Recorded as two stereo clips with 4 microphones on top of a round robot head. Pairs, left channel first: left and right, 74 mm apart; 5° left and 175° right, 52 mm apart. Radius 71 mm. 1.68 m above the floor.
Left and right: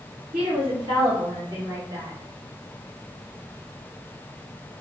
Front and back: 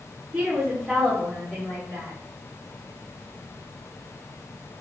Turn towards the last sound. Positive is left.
turn(degrees=-55)